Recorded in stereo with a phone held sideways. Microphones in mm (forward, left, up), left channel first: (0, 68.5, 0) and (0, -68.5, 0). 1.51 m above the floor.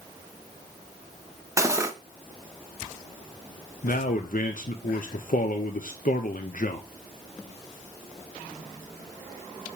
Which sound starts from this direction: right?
Cutlery clinking, at 1.6 s.